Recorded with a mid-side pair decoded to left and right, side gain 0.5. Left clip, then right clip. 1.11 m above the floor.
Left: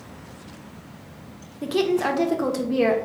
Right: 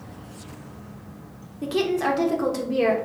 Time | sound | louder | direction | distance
1.6 | a woman speaking | left 1 dB | 10° left | 0.8 m